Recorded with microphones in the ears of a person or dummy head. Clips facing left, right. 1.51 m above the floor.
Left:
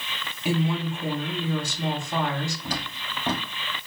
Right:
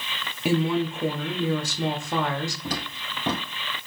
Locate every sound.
0.5 s a woman speaking: 55° right (ahead or behind), 0.8 m
2.6 s footsteps: 25° right (ahead or behind), 1.6 m